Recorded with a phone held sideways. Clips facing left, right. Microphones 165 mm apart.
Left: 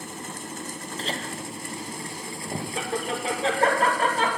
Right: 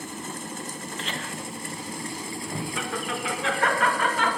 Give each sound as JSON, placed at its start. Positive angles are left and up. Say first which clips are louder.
{"t": 1.0, "sound": "laughter", "louder": "left 4 dB", "side_deg": 35, "distance_m": 0.9}